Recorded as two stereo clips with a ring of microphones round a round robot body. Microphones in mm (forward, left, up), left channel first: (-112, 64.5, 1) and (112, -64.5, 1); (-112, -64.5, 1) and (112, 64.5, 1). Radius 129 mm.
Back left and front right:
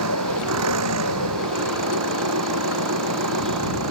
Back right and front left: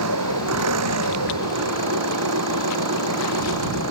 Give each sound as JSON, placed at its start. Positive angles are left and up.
{"t": 0.0, "sound": "an engine running", "azimuth_deg": 0}